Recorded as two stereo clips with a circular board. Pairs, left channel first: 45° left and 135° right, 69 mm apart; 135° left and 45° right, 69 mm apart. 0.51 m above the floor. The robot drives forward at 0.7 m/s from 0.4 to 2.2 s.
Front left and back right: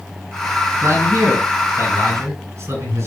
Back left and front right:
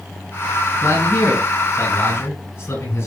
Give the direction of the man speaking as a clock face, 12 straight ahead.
6 o'clock.